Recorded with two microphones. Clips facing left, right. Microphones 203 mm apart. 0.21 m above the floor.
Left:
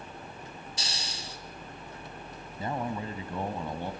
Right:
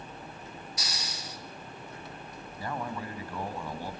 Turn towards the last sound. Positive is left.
turn(degrees=25)  # may be behind; listen again after turning